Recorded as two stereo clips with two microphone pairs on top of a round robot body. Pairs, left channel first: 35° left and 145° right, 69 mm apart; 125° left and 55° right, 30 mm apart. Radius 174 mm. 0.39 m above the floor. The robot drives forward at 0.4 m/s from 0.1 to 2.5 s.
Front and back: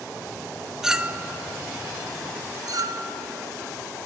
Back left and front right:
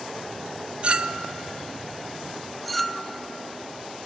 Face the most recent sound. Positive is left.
turn(degrees=-150)